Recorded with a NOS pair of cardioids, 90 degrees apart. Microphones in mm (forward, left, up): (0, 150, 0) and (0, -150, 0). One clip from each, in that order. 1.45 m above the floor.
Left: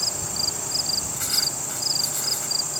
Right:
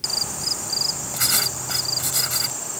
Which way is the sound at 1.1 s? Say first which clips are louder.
Right 2 dB; 60° right.